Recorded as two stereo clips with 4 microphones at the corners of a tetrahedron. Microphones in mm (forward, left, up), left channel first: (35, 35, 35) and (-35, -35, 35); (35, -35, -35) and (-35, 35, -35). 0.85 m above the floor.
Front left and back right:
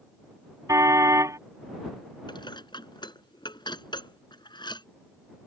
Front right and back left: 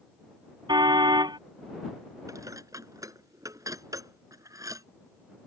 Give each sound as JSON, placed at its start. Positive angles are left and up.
{"t": 0.7, "sound": "a car horn", "azimuth_deg": 170}
{"t": 2.3, "sound": "dishes clattering", "azimuth_deg": 80}